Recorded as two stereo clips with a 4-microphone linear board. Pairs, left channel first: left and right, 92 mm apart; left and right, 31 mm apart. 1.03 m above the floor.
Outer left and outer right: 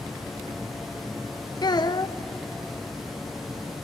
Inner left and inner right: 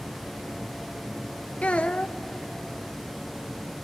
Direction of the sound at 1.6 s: 50° left (ahead or behind).